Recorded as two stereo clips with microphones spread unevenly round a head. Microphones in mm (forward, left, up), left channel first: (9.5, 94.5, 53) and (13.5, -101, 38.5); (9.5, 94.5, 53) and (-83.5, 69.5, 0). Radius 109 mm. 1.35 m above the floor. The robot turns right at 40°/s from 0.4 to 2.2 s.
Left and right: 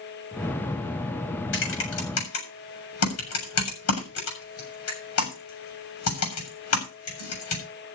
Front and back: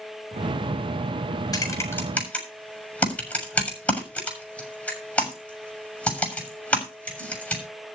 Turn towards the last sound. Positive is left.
turn(degrees=90)